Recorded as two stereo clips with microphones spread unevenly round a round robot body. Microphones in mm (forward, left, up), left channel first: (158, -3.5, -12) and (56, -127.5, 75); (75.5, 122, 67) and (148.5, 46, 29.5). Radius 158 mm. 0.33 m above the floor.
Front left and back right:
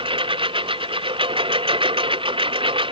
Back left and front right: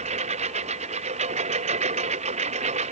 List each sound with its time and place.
0.0 s a lawn mower: 75° right